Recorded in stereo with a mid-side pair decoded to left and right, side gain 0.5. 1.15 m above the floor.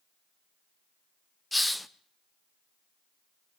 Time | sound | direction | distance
1.5 | a hiss | 5° left | 0.7 m